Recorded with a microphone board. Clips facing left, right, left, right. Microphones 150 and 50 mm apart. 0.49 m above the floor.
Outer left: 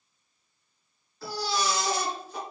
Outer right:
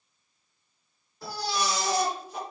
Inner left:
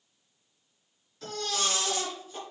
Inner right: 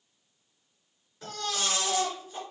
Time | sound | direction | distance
1.2 | a baby crying | 20° right (ahead or behind) | 2 m